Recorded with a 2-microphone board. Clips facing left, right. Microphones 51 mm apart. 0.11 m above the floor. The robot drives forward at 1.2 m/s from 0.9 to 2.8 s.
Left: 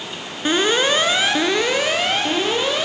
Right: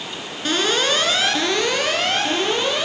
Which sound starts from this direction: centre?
An alarm, at 0.5 s.